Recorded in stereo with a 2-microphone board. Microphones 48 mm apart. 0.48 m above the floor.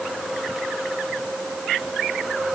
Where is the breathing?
I don't hear breathing.